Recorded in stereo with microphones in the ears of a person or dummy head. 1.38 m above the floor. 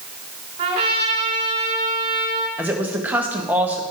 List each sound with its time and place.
0.6 s a trumpet: 35° right (ahead or behind), 1.9 m
2.6 s a woman speaking: 5° right (ahead or behind), 0.9 m